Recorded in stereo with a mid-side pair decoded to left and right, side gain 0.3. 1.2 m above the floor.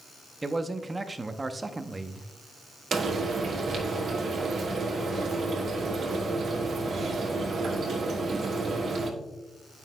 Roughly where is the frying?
Right.